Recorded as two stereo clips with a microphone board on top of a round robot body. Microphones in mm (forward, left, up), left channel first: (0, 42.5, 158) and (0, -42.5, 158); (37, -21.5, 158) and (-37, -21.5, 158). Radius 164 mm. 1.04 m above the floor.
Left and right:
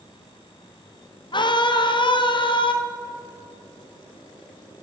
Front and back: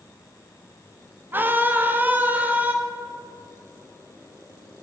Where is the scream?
115° left, 2 m; by 2.7 s 110° left, 3 m.